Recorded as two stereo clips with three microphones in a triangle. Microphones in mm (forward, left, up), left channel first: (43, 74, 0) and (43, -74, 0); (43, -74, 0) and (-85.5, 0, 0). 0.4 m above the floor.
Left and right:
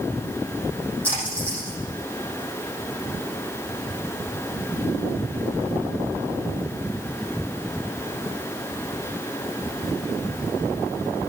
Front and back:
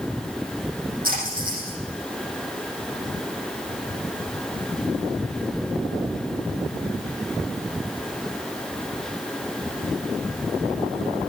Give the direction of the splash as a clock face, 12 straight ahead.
6 o'clock.